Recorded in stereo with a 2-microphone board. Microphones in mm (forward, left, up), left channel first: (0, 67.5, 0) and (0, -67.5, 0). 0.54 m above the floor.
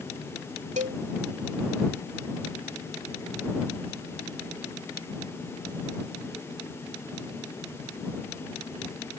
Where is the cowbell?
60° right (ahead or behind).